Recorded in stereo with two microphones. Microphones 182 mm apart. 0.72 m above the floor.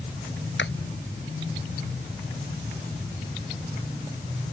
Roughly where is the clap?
Left.